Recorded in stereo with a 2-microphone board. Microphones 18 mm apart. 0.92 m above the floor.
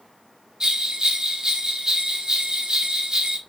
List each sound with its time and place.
0.6 s a bell: 35° right (ahead or behind), 1.4 m